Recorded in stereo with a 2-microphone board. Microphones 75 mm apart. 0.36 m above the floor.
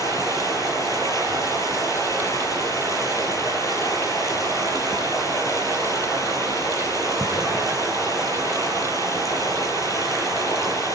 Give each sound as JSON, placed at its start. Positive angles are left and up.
{"t": 0.0, "sound": "running water", "side_deg": 45, "distance_m": 6.0}